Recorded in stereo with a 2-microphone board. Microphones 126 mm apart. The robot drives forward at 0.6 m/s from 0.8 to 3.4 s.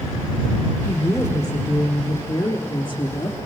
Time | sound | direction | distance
0.8 | a woman speaking | 20° left (ahead or behind) | 4 m